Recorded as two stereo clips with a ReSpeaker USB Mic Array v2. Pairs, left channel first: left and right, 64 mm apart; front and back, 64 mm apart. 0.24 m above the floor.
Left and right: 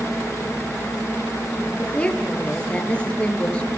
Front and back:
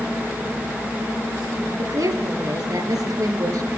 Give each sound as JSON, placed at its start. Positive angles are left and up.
{"t": 1.8, "sound": "a woman speaking", "azimuth_deg": 165, "distance_m": 4.0}